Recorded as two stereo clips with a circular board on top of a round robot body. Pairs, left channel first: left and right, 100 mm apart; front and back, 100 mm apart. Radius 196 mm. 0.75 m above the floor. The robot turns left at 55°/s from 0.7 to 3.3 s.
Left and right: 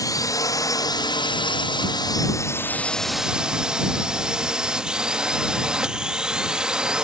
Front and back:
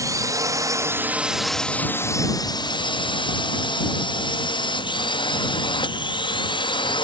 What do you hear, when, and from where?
0.0 s a drone: 135° left; by 7.0 s 10° right